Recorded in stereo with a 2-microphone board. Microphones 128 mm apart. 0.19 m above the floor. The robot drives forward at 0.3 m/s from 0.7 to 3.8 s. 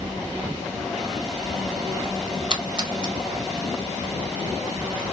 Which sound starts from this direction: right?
A splash, at 2.5 s.